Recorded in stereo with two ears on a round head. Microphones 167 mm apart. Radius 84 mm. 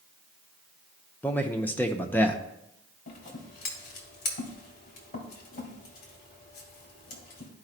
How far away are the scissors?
About 2 m.